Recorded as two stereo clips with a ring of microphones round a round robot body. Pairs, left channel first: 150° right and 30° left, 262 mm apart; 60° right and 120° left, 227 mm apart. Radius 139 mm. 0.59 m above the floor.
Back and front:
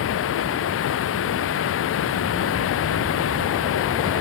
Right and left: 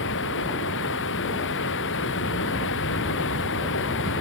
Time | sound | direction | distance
0.0 | running water | 110° right | ?